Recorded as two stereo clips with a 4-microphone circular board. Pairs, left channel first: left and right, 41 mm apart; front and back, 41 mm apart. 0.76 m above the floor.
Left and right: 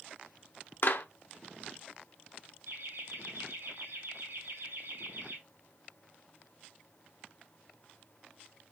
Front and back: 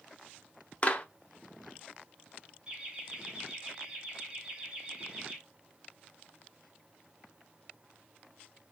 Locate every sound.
0.8 s a clap: 60° left, 0.9 m
2.7 s laughter: 110° right, 3 m